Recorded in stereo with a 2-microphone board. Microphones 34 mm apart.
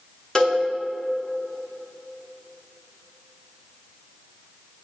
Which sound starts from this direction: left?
A cowbell, at 0.3 s.